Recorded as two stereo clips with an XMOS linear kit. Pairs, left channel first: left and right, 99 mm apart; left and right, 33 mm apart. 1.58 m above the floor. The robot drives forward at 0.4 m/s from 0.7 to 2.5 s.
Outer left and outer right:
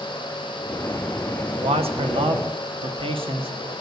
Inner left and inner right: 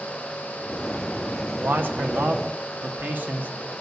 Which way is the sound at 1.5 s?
85° right.